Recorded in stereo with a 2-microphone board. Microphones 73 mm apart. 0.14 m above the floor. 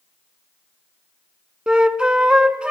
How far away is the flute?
About 0.6 m.